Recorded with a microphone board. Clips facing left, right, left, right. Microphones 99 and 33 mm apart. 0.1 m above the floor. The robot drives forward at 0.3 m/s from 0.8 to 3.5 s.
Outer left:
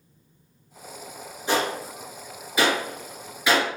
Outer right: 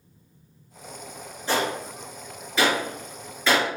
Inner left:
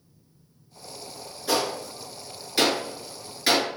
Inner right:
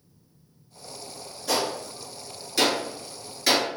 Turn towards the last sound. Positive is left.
turn(degrees=10)  # may be behind; listen again after turning